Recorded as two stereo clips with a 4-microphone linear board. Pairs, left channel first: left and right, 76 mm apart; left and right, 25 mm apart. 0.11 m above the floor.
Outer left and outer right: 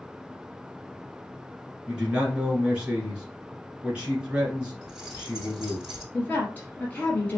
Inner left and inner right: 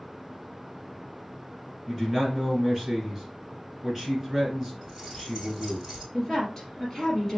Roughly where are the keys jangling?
Centre.